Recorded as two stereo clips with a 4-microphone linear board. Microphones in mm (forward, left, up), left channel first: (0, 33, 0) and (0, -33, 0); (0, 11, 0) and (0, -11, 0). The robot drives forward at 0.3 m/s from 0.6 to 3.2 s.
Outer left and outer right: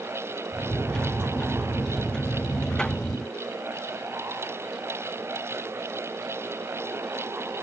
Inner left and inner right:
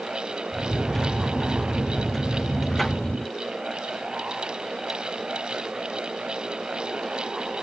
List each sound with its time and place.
Only background noise.